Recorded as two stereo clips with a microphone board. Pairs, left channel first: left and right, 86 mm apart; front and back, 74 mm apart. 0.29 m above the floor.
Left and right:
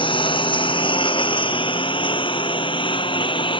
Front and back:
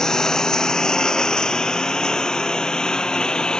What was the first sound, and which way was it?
A lawn mower, 80° left.